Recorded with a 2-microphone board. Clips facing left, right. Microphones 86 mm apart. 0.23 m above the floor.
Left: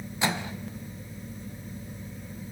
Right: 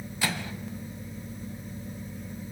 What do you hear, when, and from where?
0.2 s a microwave: 25° left (ahead or behind), 1.0 m